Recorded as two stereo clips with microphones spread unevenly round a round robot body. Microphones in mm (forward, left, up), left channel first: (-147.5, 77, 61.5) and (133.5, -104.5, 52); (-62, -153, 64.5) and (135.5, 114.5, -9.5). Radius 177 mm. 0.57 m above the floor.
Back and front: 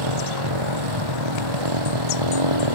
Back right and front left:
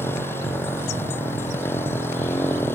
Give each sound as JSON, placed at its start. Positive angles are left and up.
{"t": 0.0, "sound": "a motorcycle", "azimuth_deg": -45}